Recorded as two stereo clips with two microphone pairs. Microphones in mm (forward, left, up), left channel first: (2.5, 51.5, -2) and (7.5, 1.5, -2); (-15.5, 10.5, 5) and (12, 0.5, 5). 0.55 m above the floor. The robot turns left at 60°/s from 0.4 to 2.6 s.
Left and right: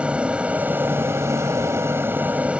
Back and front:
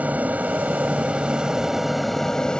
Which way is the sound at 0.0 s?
15° right.